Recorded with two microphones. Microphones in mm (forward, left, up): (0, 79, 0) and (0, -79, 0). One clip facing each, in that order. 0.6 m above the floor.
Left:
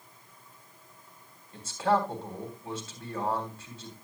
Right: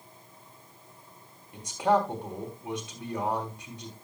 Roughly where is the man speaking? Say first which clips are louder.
Right 2 dB; centre.